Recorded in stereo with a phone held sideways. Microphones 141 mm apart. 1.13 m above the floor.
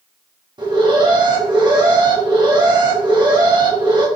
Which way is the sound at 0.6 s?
30° right (ahead or behind).